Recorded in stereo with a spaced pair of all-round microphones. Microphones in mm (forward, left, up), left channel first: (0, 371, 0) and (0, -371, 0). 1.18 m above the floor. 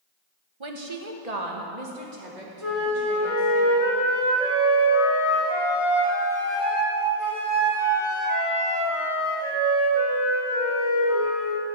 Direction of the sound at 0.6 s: 40° right (ahead or behind).